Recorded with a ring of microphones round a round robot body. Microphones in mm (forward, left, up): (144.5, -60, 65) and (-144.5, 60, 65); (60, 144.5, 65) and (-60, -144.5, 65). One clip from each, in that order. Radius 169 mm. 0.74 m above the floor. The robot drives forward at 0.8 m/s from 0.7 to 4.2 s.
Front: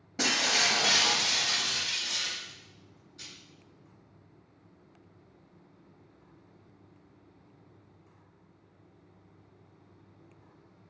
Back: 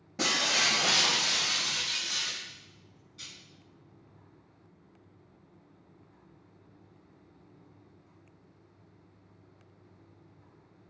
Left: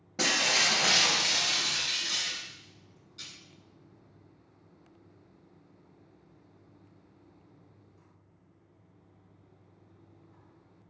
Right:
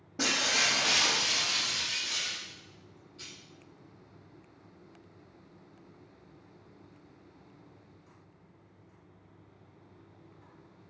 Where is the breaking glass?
55° left, 4.5 m; by 3.3 s 80° left, 4 m.